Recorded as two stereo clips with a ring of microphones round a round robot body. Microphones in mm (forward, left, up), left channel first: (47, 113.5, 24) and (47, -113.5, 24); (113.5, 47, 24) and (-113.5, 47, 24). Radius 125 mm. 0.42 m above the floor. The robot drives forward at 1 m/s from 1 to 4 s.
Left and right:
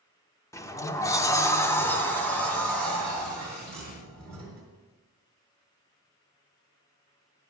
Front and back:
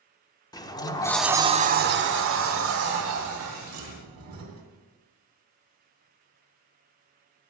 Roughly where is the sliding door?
Ahead left.